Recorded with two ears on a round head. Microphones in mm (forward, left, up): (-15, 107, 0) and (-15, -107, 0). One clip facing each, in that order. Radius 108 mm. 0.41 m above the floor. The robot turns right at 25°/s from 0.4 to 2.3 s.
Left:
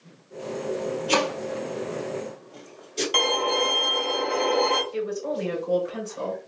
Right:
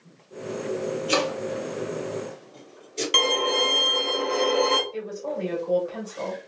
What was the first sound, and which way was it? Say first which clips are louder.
Chopping: even; 10° right (ahead or behind).